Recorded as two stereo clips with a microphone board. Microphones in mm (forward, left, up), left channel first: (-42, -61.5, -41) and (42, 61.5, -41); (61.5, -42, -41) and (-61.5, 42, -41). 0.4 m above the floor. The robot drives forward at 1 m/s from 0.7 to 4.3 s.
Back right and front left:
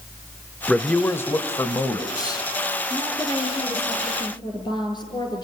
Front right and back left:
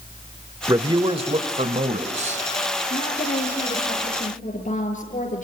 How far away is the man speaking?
About 1.1 m.